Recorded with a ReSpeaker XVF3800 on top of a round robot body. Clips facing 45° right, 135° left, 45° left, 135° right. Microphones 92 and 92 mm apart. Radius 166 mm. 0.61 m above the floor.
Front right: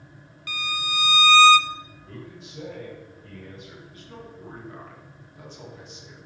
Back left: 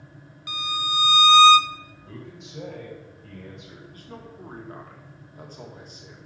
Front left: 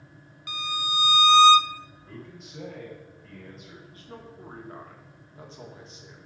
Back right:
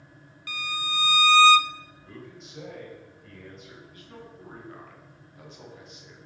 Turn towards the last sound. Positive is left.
turn(degrees=100)